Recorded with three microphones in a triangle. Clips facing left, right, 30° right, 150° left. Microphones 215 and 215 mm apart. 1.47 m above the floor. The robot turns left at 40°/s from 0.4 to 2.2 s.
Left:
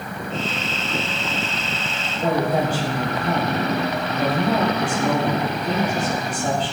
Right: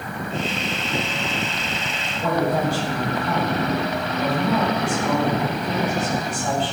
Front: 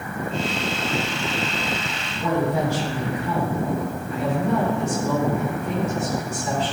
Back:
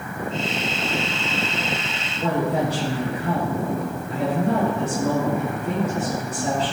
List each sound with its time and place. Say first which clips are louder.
2.2 s a woman speaking: left 1 dB, even; 145° left, 3 m